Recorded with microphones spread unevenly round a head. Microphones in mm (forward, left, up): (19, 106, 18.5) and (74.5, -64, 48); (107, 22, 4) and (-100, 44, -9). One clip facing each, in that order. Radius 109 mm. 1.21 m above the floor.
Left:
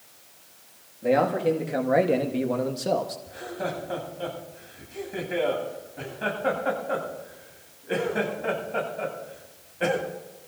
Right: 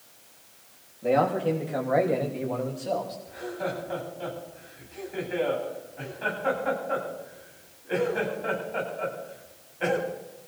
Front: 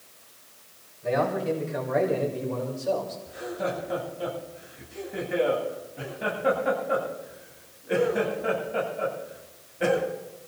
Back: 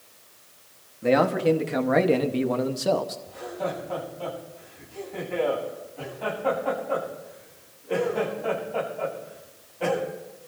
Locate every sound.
1.0 s a man speaking: 170° right, 1.7 m; by 3.2 s 150° left, 1.4 m
3.3 s laughter: 65° left, 9.5 m